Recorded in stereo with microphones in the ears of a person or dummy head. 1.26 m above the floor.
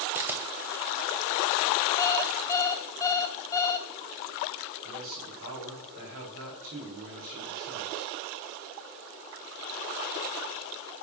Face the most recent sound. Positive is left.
turn(degrees=-40)  # may be behind; listen again after turning